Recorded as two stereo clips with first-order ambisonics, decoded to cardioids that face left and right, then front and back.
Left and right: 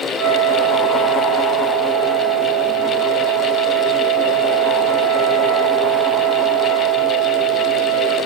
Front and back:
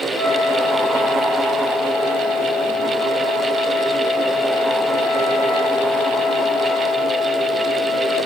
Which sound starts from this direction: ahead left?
A flute, at 0.1 s.